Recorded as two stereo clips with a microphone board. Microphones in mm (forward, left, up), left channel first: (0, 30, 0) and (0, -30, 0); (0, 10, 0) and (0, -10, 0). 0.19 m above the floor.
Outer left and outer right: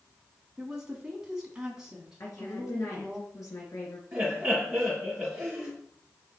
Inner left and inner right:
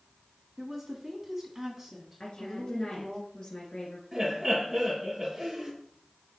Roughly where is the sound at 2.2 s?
Left.